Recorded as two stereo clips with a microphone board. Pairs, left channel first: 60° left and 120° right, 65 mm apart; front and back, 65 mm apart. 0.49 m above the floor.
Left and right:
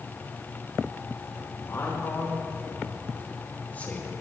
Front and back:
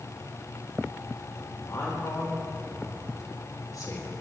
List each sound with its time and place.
1.6 s a man speaking: 25° left, 3 m; by 4.1 s 5° right, 2.5 m